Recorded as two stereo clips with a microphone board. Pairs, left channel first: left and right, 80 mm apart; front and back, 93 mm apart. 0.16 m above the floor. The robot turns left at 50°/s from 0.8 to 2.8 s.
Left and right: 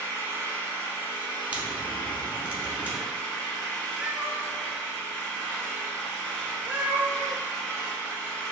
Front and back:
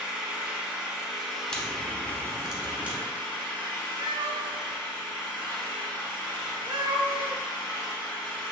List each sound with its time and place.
0.0 s an engine running: 120° left, 1.2 m; by 8.5 s 20° left, 1.2 m
1.5 s a crack: 65° right, 0.7 m; by 3.0 s 130° right, 0.7 m
4.0 s a cat meowing: 160° right, 0.6 m